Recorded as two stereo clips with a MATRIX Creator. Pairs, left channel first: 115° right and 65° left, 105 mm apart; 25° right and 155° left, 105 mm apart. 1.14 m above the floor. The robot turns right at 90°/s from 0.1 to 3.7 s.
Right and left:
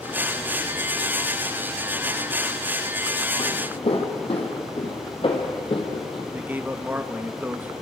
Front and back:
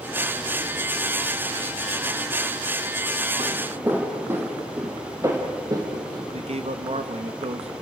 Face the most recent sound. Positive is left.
turn(degrees=140)